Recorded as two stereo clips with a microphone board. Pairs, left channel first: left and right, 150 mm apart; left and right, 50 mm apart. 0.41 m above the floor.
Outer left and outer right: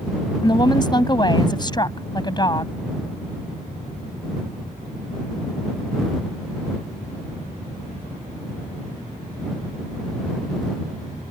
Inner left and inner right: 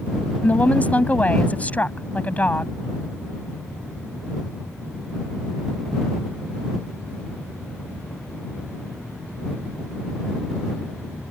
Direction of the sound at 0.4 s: 30° left (ahead or behind).